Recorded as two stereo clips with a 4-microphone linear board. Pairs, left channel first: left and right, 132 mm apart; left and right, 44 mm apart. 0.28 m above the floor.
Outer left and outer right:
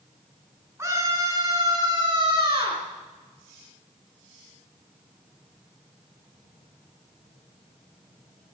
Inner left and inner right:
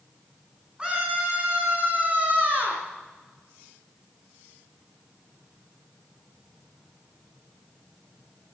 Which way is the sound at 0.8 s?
20° right (ahead or behind).